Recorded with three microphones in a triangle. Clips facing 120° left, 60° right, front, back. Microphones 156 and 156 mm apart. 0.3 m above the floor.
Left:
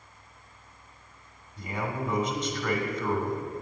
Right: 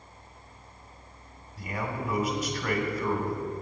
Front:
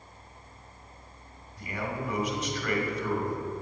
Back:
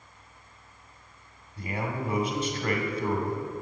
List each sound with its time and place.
1.6 s a man speaking: 145° right, 1.9 m